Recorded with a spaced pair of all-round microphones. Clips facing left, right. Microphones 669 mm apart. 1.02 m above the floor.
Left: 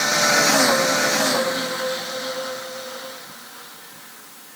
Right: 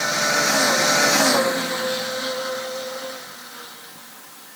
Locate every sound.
Only background noise.